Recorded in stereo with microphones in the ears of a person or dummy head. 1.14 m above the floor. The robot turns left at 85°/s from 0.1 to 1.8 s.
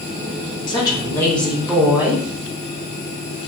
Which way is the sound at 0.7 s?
25° left (ahead or behind).